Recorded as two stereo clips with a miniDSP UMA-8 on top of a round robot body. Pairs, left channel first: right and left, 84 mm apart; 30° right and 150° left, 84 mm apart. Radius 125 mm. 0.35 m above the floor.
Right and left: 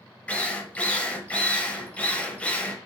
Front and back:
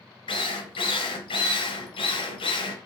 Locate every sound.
0.3 s a drill: 15° right, 0.8 m